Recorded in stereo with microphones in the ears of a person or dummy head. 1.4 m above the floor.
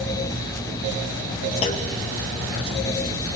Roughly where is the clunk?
Left.